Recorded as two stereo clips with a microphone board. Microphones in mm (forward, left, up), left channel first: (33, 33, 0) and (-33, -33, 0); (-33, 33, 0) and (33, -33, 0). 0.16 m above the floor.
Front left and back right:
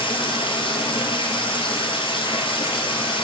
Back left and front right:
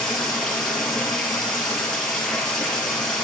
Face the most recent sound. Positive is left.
turn(degrees=50)